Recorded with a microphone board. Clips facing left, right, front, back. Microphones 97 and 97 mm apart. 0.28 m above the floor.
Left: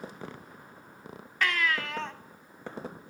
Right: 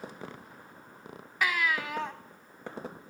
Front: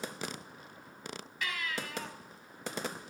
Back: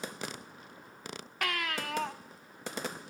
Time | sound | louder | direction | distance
1.4 | a baby crying | even, back 4 dB | 165° right | 0.8 m